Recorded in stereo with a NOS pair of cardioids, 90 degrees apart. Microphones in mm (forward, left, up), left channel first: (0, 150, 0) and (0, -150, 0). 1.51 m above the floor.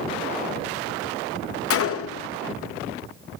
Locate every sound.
1.7 s a gunshot: 50° left, 0.8 m